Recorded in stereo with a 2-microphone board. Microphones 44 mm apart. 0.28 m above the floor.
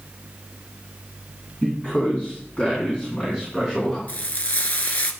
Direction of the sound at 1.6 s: 30° left (ahead or behind).